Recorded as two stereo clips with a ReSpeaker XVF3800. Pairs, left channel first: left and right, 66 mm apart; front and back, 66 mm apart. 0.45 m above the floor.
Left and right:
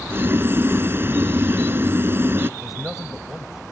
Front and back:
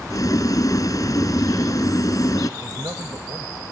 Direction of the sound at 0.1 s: 30° right.